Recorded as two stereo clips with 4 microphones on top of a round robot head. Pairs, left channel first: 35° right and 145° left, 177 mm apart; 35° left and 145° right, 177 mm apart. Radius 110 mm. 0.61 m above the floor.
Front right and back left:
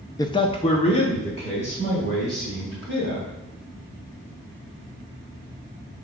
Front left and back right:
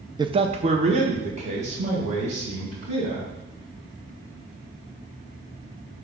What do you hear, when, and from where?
0.2 s a man speaking: 95° right, 0.6 m